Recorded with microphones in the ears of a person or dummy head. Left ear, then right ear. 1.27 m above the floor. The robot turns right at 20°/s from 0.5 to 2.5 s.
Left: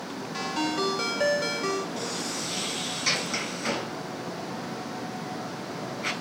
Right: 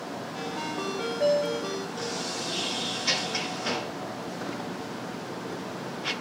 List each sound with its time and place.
0.3 s a ringtone: 85° left, 1.8 m; by 1.9 s 60° left (ahead or behind), 1.8 m
2.0 s a sliding door: 75° left (ahead or behind), 6.5 m; by 6.1 s 60° left (ahead or behind), 6.5 m